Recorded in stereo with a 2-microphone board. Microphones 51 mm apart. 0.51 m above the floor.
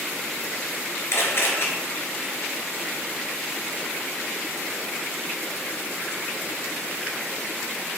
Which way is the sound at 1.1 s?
60° left (ahead or behind).